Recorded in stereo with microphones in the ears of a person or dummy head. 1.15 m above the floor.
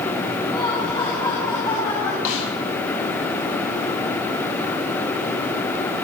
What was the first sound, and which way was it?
Laughter, 20° left (ahead or behind).